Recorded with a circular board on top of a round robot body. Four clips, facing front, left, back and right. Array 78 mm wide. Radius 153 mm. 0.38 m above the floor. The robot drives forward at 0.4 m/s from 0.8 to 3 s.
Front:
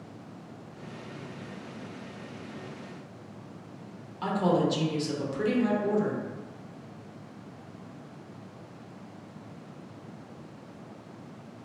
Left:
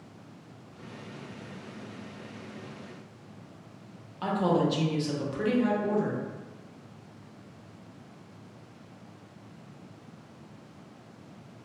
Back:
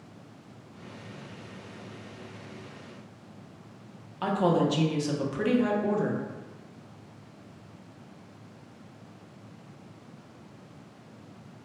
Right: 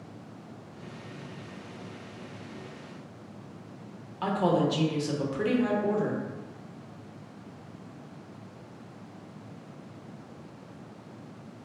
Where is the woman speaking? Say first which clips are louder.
Even, back 1 dB; 160° right, 1.0 m.